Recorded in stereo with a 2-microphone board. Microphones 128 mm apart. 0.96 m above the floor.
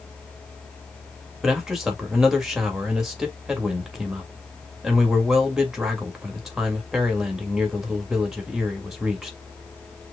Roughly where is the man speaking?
Centre.